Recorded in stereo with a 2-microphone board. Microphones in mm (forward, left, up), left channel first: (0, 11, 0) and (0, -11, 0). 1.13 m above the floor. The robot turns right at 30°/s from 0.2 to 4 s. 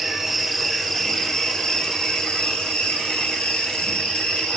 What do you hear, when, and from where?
0.0 s an insect: 5° right, 3.5 m; by 4.6 s 110° left, 3.5 m